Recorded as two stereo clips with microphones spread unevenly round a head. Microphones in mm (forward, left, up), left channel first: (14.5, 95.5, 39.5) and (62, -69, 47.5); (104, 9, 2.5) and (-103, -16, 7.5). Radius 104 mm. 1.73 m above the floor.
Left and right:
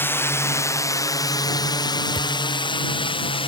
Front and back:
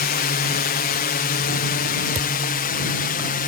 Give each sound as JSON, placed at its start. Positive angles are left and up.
{"t": 0.0, "sound": "a drone", "azimuth_deg": 35}
{"t": 2.1, "sound": "a thud", "azimuth_deg": 155}